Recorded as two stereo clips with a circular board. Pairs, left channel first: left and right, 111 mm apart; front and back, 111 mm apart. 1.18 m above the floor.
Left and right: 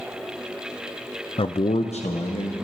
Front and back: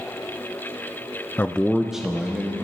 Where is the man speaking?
65° left, 0.5 m; by 2.5 s 100° left, 1.9 m.